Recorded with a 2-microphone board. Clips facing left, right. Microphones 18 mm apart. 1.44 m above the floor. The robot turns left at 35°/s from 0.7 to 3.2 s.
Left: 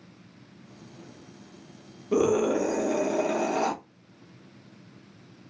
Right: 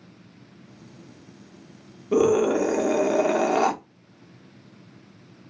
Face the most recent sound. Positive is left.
turn(degrees=-45)